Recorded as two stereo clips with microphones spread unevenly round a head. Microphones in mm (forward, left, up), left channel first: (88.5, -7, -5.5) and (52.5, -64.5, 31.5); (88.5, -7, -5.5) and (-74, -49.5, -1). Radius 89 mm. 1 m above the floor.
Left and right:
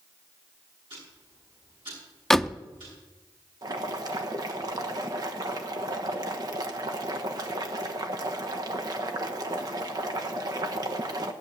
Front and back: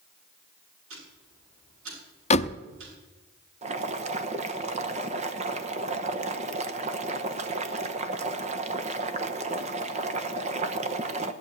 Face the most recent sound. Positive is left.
turn(degrees=180)